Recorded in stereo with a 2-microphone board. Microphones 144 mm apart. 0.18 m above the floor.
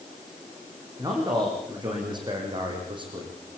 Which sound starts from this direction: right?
A man speaking, at 1.0 s.